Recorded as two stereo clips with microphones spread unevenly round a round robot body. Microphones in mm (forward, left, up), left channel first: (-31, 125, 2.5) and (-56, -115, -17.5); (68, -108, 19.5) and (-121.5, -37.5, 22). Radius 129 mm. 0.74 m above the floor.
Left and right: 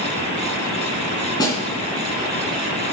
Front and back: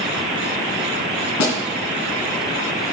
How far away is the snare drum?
About 2.5 m.